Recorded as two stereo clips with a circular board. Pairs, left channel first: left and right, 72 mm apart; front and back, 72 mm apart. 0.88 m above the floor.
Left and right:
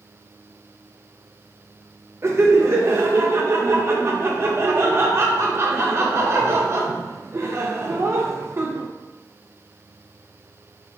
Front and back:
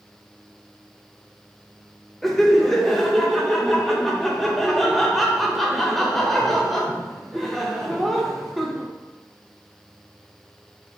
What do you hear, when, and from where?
2.2 s laughter: 85° right, 0.6 m